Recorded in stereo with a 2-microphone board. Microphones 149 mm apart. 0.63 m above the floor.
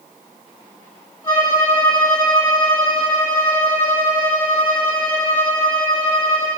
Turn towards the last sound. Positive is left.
turn(degrees=25)  # may be behind; listen again after turning